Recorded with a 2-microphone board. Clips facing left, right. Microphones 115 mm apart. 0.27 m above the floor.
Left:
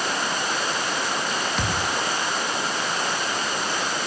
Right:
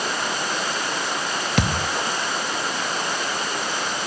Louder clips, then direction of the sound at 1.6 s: Right 3 dB; 85° right.